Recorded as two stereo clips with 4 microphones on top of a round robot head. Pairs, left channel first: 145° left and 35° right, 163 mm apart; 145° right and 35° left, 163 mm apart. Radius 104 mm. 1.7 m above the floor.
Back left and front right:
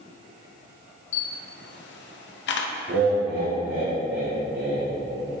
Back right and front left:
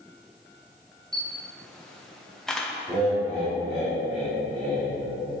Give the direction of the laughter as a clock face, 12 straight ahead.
2 o'clock.